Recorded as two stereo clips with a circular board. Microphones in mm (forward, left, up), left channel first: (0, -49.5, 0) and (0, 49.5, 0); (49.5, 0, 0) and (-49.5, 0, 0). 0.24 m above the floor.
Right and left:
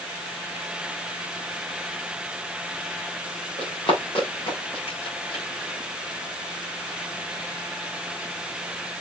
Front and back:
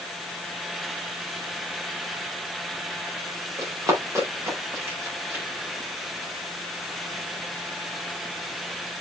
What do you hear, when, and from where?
3.6 s running footsteps: 120° right, 6.5 m; by 5.5 s 110° right, 7.5 m